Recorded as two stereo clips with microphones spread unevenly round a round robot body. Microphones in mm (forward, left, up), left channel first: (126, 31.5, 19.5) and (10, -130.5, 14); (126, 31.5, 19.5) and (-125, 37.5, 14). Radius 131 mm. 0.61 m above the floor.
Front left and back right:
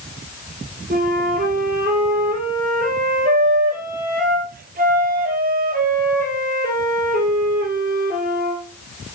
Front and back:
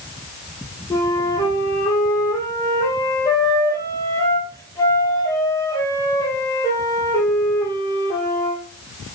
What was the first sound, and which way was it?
A flute, 80° right.